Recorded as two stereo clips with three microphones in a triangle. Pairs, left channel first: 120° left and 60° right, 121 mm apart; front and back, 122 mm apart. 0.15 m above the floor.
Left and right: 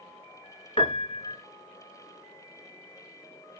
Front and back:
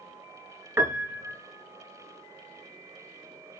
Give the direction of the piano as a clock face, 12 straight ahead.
8 o'clock.